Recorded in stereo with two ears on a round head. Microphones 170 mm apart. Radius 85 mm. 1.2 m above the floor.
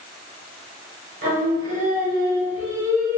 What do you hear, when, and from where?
1.2 s singing: 50° right (ahead or behind), 1.3 m